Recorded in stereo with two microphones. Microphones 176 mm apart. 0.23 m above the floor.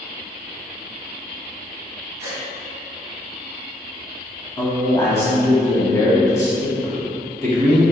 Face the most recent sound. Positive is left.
turn(degrees=15)  # may be behind; listen again after turning